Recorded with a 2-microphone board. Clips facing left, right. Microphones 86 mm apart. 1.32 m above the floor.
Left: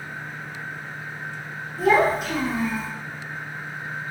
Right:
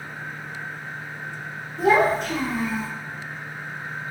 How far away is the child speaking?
About 0.8 m.